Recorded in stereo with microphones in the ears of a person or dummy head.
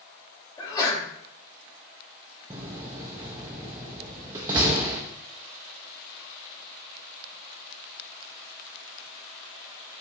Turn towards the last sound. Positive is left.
turn(degrees=-15)  # may be behind; listen again after turning